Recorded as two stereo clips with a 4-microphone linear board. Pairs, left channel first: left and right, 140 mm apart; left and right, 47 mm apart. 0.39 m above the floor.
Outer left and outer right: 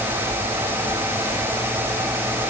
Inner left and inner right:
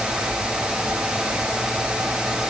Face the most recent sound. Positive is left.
No sound to turn to.